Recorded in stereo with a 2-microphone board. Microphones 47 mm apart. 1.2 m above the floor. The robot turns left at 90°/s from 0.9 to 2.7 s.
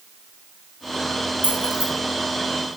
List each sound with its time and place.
1.4 s keys jangling: 40° right (ahead or behind), 3.5 m; by 1.9 s 80° right, 3.5 m